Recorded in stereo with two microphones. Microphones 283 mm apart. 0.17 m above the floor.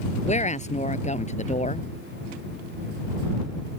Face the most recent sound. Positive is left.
turn(degrees=25)  # may be behind; listen again after turning